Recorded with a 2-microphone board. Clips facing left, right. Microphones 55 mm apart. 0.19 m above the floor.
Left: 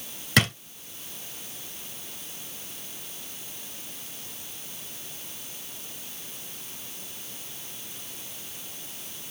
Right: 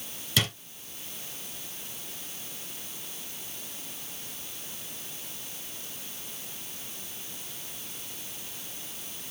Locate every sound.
0.4 s a drawer: 60° left (ahead or behind), 1.1 m